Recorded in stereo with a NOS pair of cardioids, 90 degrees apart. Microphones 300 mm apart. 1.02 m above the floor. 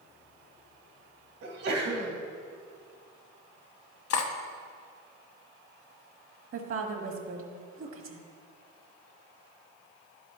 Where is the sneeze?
65° right, 2.5 m.